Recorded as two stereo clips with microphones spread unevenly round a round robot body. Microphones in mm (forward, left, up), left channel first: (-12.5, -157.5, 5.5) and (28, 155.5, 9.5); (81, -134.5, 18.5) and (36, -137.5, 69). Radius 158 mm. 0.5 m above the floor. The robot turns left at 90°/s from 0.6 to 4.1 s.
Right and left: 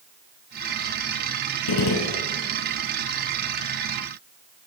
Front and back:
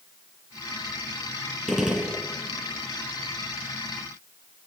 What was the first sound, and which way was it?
A gunshot, 115° right.